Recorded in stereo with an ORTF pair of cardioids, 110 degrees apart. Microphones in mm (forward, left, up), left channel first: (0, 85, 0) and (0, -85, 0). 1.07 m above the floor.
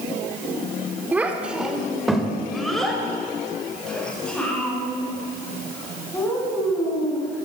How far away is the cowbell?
I don't hear a cowbell.